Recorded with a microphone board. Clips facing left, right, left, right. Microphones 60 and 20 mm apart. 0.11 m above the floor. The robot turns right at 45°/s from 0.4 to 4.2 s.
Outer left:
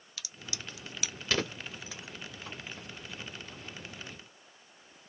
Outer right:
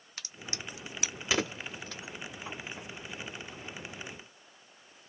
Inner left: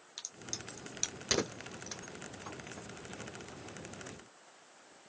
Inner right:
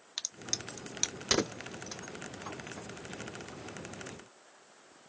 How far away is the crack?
About 0.5 m.